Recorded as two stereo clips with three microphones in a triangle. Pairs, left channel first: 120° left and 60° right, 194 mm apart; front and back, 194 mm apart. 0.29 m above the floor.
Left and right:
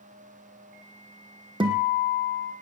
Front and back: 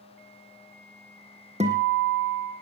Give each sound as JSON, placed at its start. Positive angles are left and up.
{"t": 1.6, "sound": "a guitar", "azimuth_deg": -125, "distance_m": 2.0}